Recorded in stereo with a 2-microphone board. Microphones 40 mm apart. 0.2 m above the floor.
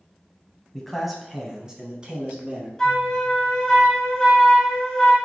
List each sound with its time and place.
0.7 s a man speaking: 10° left (ahead or behind), 1.0 m; by 2.7 s 30° right (ahead or behind), 1.7 m
2.8 s a flute: 15° left (ahead or behind), 1.5 m